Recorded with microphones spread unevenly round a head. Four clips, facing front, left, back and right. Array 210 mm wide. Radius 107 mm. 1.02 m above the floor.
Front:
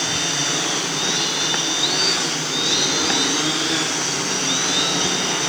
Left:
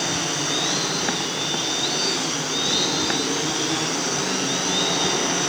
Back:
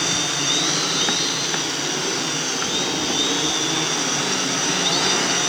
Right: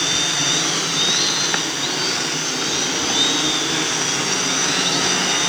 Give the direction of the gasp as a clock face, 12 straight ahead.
I don't hear a gasp.